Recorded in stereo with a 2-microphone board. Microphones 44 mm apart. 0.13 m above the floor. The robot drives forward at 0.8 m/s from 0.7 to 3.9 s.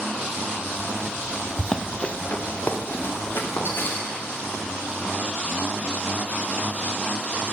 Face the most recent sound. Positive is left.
turn(degrees=65)  # may be behind; listen again after turning